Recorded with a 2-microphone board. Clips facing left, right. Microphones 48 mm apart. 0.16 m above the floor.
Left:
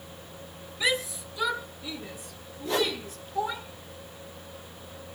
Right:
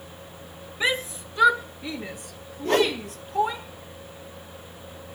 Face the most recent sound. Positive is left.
turn(degrees=-50)  # may be behind; listen again after turning